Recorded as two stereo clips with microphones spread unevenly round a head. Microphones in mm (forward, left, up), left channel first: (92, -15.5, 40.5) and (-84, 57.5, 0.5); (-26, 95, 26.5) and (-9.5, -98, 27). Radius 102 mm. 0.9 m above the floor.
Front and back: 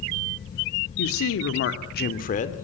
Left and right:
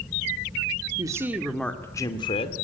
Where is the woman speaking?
15° right, 2 m; by 2.5 s 35° left, 2.5 m.